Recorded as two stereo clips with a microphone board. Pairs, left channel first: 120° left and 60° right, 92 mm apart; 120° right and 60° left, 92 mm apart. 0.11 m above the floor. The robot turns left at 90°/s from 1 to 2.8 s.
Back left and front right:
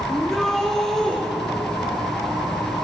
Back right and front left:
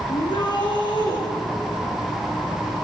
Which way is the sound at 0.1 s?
155° right.